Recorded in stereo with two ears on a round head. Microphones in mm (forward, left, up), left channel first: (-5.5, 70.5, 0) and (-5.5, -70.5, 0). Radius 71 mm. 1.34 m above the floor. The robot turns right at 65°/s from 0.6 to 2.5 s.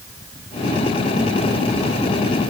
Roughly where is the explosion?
I don't hear an explosion.